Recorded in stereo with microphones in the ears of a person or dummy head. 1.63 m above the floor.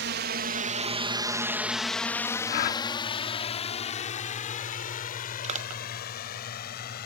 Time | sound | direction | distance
0.0 | a drone | 55° right (ahead or behind) | ?
2.5 | a gasp | 45° left (ahead or behind) | ?
5.4 | crushing | 40° right (ahead or behind) | ?